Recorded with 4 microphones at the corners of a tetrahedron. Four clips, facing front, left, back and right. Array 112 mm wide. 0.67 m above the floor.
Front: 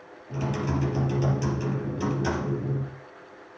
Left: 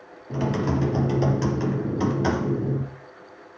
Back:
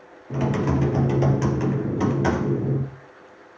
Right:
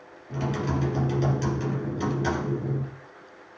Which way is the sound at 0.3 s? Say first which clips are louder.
Left 4 dB, back 6 dB; 145° left.